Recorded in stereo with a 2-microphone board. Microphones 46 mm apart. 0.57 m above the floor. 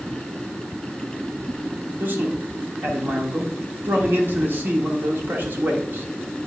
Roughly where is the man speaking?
Right.